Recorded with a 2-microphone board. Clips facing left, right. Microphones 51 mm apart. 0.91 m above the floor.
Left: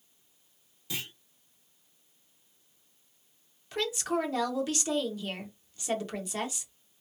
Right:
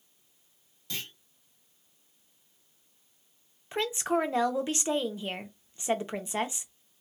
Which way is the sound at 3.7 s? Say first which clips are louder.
Right 2 dB; 25° right (ahead or behind).